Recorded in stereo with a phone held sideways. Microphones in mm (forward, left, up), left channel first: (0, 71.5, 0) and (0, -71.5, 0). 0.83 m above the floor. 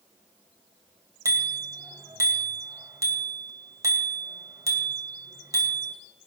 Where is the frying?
No frying in this recording.